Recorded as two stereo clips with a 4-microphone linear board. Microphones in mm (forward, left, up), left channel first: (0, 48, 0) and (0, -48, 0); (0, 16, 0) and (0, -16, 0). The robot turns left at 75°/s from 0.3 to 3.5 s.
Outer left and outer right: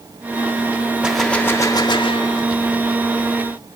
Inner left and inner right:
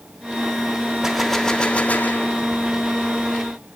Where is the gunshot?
170° right, 1.5 m; by 2.5 s 80° left, 1.5 m.